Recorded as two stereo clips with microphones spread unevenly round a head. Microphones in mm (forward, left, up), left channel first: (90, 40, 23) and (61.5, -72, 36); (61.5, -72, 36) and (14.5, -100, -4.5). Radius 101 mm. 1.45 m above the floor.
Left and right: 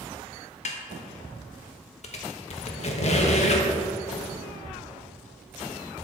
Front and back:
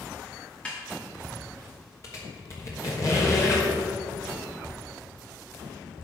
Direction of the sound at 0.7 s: 60° left.